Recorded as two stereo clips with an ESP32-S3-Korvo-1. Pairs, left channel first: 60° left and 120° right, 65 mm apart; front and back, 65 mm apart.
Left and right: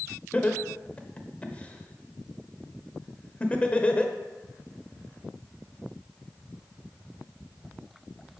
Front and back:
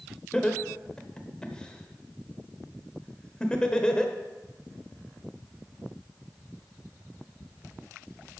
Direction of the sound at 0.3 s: 50° left.